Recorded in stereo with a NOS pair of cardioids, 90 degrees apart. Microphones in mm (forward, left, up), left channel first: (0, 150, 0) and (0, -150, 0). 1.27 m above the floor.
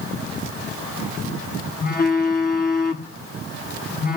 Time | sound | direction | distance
1.8 | a phone buzzing | 30° left | 0.9 m